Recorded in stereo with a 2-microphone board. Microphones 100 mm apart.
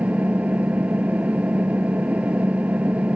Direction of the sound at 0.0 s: 15° right (ahead or behind).